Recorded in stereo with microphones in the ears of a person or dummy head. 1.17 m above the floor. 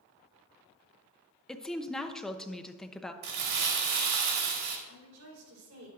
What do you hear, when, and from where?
1.5 s a woman speaking: 5° left (ahead or behind), 0.6 m
3.2 s crumpling: 65° right (ahead or behind), 1.6 m
4.9 s a woman speaking: 85° right, 4 m